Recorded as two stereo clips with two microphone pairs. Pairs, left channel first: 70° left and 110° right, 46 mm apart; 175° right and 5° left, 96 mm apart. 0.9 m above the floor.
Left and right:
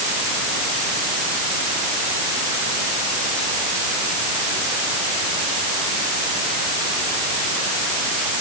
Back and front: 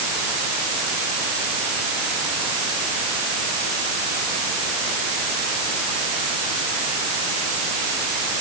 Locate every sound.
Only background noise.